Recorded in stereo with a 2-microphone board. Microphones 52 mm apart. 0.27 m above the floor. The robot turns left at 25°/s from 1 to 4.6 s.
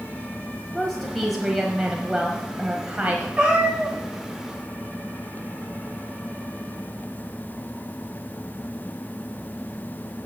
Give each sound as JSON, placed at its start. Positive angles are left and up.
{"t": 0.7, "sound": "a woman speaking", "azimuth_deg": 10, "distance_m": 1.3}
{"t": 3.4, "sound": "a cat meowing", "side_deg": -25, "distance_m": 4.5}